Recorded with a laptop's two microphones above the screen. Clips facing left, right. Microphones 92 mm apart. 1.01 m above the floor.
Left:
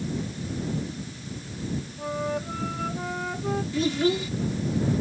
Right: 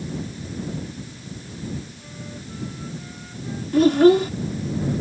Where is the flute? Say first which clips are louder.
Left 10 dB; 80° left.